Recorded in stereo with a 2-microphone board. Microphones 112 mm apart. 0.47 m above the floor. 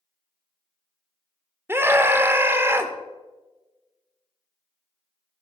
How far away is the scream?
About 1.1 m.